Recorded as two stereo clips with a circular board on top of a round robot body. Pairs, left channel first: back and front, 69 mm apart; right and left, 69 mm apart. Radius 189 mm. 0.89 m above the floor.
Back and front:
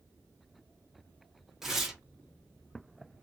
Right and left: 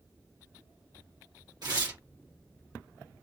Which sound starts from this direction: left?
Tearing paper, at 1.6 s.